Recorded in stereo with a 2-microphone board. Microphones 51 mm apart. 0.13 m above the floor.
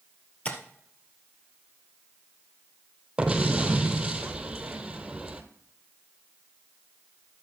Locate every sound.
0.5 s tapping: 25° left (ahead or behind), 1.8 m
3.2 s an explosion: 15° right (ahead or behind), 1.2 m